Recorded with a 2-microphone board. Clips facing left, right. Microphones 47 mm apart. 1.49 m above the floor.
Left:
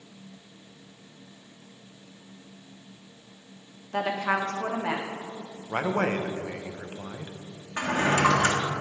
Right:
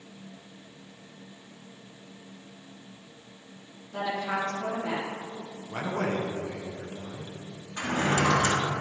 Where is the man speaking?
45° left (ahead or behind), 0.7 m.